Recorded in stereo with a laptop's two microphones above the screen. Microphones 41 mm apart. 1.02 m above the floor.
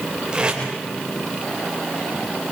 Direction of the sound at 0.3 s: 20° right (ahead or behind).